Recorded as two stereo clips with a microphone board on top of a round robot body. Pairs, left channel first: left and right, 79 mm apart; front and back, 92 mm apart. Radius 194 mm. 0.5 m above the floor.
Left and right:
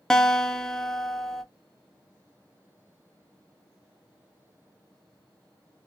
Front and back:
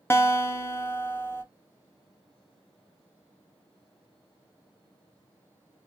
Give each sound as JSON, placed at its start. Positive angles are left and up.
{"t": 0.1, "sound": "a guitar", "azimuth_deg": 15, "distance_m": 0.8}